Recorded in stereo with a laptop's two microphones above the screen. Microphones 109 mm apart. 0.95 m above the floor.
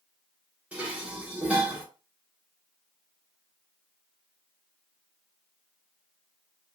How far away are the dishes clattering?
About 1.3 m.